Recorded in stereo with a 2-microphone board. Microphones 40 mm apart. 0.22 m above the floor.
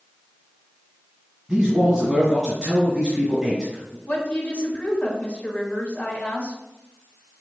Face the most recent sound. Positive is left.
turn(degrees=40)  # may be behind; listen again after turning